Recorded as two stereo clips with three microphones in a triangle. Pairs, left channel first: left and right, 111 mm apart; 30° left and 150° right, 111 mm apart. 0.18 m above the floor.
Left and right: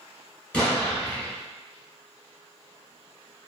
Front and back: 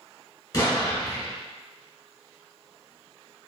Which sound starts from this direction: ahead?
An explosion, at 0.5 s.